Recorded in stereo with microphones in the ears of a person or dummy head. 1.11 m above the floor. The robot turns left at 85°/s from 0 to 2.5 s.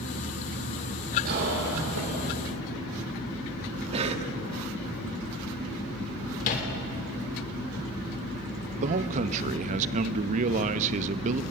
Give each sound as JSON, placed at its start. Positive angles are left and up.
{"t": 1.2, "sound": "a cough", "azimuth_deg": -50, "distance_m": 3.0}
{"t": 3.9, "sound": "a cough", "side_deg": -40, "distance_m": 2.0}
{"t": 6.4, "sound": "a microwave", "side_deg": 40, "distance_m": 3.5}
{"t": 8.8, "sound": "a man speaking", "side_deg": -45, "distance_m": 0.9}